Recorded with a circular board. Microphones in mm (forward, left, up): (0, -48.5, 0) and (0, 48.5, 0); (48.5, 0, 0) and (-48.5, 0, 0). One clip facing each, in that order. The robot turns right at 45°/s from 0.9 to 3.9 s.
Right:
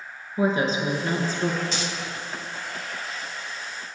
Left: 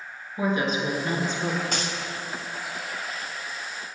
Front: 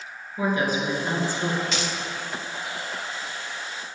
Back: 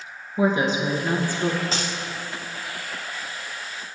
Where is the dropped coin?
125° left, 1.0 m; by 1.9 s 135° left, 1.0 m.